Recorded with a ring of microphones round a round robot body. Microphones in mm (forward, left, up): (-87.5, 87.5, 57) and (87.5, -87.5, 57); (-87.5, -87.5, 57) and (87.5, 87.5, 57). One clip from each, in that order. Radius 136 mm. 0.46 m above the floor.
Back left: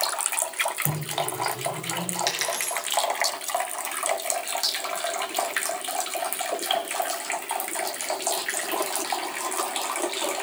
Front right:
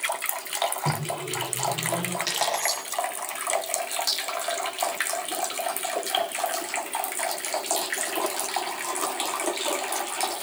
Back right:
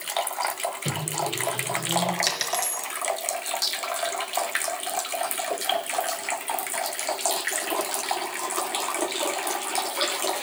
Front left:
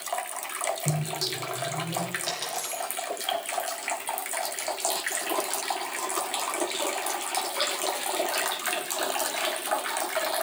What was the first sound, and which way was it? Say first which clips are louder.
A microwave: even, back right 2 dB; 100° right.